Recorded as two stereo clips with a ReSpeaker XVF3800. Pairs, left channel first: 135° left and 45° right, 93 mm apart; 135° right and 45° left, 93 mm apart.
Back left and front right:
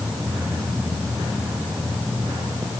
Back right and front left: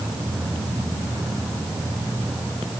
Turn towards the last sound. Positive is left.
No sound to turn to.